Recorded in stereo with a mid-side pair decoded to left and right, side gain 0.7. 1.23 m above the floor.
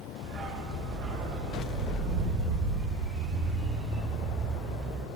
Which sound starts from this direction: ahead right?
A dog barking, at 0.2 s.